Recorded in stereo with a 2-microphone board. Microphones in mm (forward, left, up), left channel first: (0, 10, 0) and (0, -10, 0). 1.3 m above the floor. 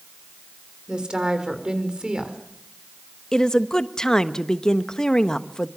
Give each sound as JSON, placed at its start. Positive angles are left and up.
{"t": 0.9, "sound": "a woman speaking", "side_deg": -40, "distance_m": 4.0}
{"t": 3.3, "sound": "a woman speaking", "side_deg": 30, "distance_m": 1.1}